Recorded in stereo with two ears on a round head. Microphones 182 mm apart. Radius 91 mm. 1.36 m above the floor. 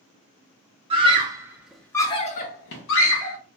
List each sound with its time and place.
0.9 s a scream: 25° right (ahead or behind), 0.9 m; by 3.4 s 70° left (ahead or behind), 0.8 m